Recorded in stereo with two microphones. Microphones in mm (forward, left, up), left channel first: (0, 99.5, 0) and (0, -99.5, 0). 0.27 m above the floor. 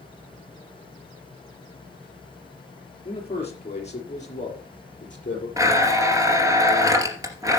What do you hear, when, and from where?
3.0 s a man speaking: 30° left (ahead or behind), 4.5 m; by 5.5 s 40° left (ahead or behind), 6 m
5.6 s a blender: 15° right (ahead or behind), 2.5 m